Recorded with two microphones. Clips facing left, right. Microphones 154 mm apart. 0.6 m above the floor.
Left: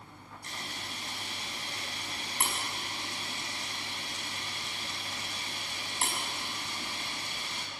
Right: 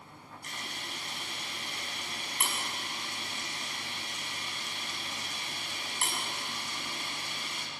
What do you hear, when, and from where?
0.4 s a camera shutter: 30° left (ahead or behind), 5.5 m